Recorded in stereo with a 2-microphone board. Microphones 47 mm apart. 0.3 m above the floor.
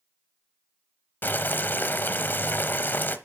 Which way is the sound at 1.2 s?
45° left (ahead or behind).